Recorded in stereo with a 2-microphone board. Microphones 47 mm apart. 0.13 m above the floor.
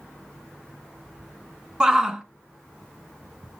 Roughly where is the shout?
Centre.